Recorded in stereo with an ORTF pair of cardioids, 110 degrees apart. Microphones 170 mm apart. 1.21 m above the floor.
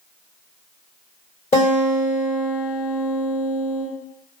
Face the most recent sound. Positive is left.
turn(degrees=45)